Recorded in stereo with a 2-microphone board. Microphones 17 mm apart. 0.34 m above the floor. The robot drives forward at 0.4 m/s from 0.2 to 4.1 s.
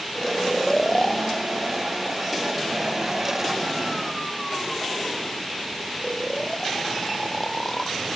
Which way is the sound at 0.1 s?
20° left (ahead or behind).